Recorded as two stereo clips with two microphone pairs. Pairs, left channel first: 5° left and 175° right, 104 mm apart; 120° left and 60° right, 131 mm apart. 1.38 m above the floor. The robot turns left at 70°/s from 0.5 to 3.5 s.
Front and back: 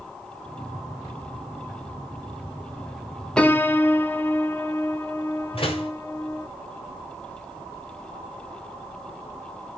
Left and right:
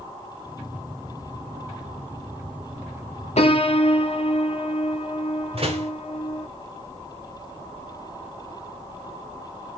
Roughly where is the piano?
Left.